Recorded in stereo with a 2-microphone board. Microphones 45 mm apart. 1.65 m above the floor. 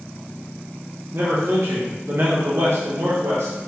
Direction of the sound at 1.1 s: 60° right (ahead or behind).